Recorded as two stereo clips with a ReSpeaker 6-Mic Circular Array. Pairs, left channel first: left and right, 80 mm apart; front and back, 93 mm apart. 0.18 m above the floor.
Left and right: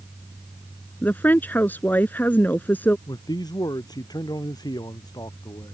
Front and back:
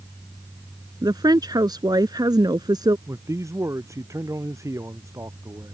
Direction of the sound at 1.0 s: 150° left.